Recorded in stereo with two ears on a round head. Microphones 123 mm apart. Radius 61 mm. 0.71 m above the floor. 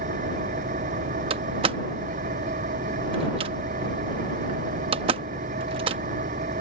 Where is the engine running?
55° right (ahead or behind).